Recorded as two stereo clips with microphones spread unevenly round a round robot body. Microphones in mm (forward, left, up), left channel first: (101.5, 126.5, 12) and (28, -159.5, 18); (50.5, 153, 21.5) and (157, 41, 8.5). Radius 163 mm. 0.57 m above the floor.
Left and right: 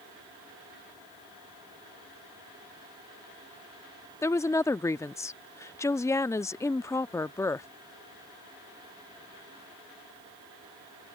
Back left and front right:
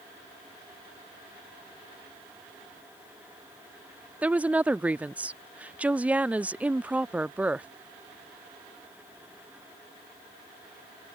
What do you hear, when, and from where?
4.2 s a woman speaking: 10° left